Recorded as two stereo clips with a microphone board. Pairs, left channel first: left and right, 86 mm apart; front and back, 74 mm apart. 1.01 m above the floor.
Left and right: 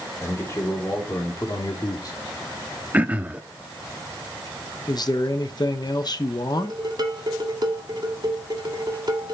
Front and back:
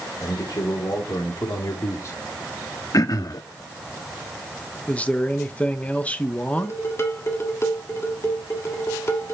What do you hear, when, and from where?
0.2 s a man speaking: 30° left, 3 m; by 2.2 s 50° left, 2 m
2.9 s throat clearing: 20° right, 0.6 m
4.9 s a man speaking: 65° left, 0.9 m
6.6 s dishes clattering: 55° right, 1.7 m